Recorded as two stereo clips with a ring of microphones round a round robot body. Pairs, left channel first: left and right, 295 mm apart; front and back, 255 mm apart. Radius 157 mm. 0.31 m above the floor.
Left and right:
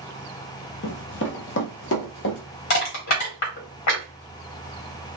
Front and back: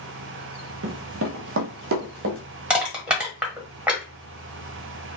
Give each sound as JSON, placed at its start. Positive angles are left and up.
{"t": 0.8, "sound": "running footsteps", "azimuth_deg": 140, "distance_m": 0.6}
{"t": 2.7, "sound": "crushing", "azimuth_deg": 95, "distance_m": 1.6}